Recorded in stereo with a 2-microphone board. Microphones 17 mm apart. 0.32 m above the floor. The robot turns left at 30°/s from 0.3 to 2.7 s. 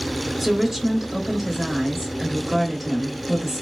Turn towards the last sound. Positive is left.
turn(degrees=0)  # may be behind; listen again after turning